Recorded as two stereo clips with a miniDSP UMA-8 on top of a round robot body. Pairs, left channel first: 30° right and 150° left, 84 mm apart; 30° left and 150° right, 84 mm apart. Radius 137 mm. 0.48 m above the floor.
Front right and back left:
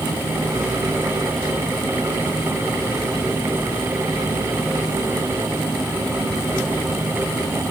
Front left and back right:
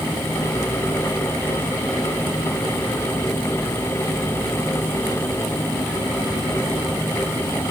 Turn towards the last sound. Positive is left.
No sound to turn to.